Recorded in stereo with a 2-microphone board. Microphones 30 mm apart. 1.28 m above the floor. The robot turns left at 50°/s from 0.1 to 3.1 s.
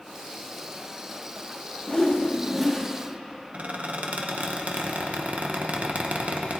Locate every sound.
1.9 s a whoosh: 35° left, 1.5 m; by 2.9 s 15° right, 1.5 m
3.5 s a squeak: 50° right (ahead or behind), 0.9 m